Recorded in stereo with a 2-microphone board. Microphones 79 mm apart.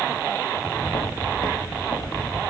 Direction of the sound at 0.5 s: 60° left (ahead or behind).